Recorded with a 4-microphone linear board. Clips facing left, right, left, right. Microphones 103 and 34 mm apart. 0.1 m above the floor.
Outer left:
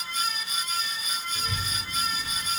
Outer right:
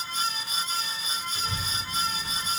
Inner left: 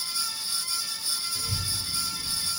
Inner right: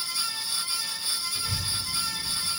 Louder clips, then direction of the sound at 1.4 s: Even, inner right 1 dB; 25° left (ahead or behind).